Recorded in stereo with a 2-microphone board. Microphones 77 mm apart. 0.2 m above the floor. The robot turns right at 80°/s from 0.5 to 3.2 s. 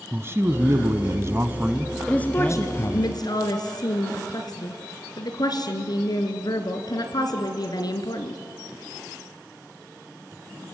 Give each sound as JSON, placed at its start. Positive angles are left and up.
{"t": 0.1, "sound": "a man speaking", "azimuth_deg": -125, "distance_m": 1.4}
{"t": 2.1, "sound": "a woman speaking", "azimuth_deg": 10, "distance_m": 3.0}